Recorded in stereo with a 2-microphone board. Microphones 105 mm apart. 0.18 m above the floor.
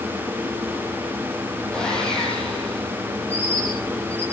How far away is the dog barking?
No dog barking in this recording.